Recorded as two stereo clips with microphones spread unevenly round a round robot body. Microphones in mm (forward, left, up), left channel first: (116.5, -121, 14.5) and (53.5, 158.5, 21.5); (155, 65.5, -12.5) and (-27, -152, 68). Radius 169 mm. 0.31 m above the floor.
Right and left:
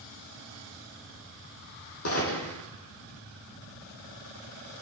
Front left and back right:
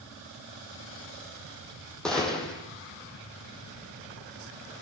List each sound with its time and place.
2.0 s a gunshot: 40° right, 5.5 m